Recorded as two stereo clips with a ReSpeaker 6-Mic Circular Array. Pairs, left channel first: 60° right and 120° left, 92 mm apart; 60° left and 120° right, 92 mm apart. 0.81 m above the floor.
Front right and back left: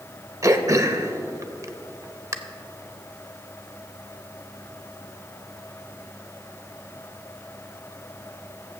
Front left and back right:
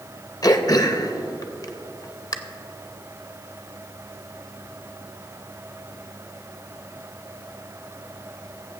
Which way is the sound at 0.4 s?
85° left.